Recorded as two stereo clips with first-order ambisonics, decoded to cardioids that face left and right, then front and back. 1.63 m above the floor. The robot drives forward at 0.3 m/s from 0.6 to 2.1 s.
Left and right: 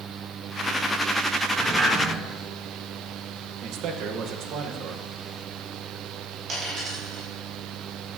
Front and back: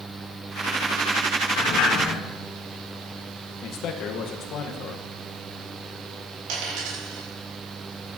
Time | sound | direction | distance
1.6 | a sliding door | 25° right | 2.5 m
3.6 | a man speaking | 45° right | 1.4 m
6.5 | a dropped coin | 160° right | 6 m